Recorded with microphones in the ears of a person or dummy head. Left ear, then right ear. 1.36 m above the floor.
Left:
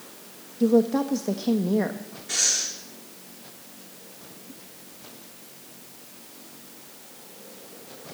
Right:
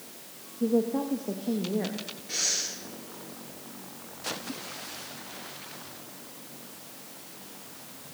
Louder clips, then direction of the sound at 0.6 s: Left 6 dB; 80° left.